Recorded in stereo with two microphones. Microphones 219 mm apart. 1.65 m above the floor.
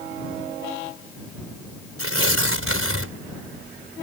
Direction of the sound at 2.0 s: 85° right.